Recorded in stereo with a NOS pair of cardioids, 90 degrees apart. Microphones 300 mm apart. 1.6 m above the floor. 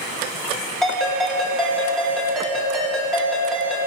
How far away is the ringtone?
About 3 m.